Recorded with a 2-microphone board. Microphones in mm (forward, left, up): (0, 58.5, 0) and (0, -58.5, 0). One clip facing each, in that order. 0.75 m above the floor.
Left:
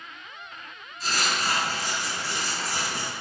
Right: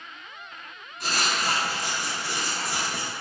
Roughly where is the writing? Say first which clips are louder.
Right 1 dB; right.